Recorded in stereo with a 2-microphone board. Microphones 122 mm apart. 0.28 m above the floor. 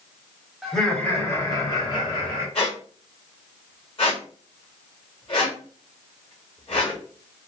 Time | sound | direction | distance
0.6 | laughter | centre (ahead or behind) | 1.0 m
2.5 | a squeak | 45° left (ahead or behind) | 1.3 m